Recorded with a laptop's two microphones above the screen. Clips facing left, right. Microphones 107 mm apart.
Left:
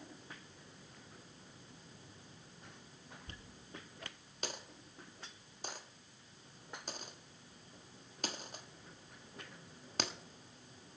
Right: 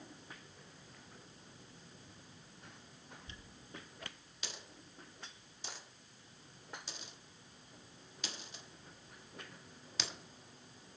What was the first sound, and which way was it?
A dropped coin, 50° left (ahead or behind).